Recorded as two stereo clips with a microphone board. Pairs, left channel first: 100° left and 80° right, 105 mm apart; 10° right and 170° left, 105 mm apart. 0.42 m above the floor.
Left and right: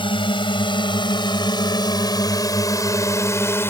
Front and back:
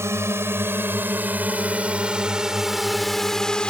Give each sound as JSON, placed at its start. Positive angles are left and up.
{"t": 0.0, "sound": "a drone", "azimuth_deg": 110}